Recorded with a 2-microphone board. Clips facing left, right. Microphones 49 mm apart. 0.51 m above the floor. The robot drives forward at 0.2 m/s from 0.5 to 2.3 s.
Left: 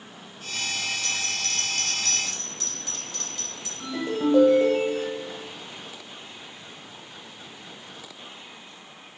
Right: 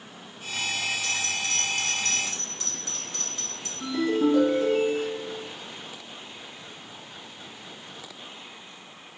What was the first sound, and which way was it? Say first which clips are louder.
A bell: right 1 dB; 35° right (ahead or behind).